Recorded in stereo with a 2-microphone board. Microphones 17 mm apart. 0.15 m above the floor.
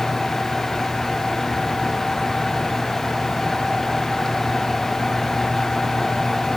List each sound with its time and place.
Only background noise.